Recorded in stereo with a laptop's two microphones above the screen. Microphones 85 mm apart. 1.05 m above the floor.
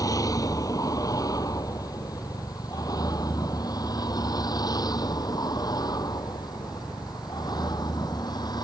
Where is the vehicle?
40° left (ahead or behind); by 8.7 s 50° left (ahead or behind).